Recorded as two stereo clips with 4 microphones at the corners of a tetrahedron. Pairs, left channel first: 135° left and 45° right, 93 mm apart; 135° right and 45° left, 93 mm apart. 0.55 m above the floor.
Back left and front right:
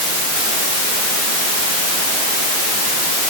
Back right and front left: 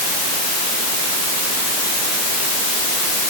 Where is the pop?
No pop in this recording.